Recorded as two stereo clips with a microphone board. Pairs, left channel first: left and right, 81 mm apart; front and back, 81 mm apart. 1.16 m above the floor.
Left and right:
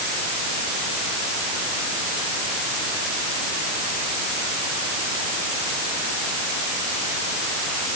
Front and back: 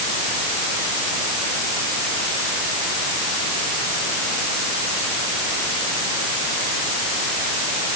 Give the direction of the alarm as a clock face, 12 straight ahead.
I don't hear an alarm.